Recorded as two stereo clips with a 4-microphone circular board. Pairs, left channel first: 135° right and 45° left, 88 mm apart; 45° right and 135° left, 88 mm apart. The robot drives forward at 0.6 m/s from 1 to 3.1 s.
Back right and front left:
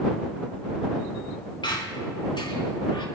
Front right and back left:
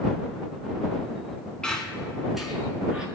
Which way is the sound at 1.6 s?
125° right.